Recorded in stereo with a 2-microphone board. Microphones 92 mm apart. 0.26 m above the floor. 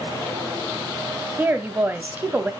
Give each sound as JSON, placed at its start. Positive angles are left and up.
{"t": 1.4, "sound": "a woman speaking", "side_deg": -20, "distance_m": 1.2}